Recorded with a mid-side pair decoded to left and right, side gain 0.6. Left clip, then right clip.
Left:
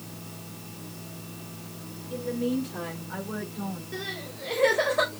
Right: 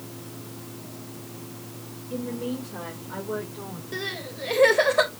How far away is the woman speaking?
About 6.5 m.